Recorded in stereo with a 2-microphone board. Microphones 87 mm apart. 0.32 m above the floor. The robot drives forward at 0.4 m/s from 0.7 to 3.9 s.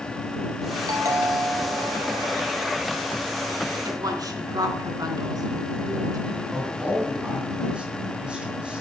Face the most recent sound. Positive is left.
turn(degrees=-10)  # may be behind; listen again after turning